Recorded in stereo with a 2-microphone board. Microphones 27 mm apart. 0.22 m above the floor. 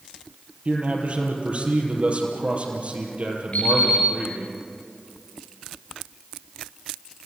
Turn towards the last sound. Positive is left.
turn(degrees=50)  # may be behind; listen again after turning